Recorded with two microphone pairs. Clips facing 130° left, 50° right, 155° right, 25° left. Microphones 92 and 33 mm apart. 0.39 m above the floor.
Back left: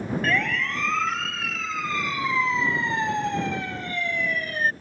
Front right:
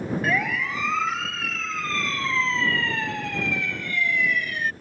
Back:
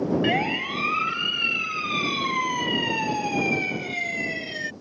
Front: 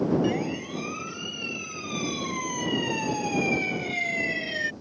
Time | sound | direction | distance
0.2 | a siren | 125° right | ?